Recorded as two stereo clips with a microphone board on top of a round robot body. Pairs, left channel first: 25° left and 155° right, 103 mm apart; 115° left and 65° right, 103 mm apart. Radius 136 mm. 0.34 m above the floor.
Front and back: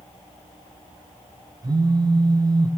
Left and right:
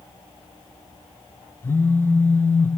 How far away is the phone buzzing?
About 0.6 m.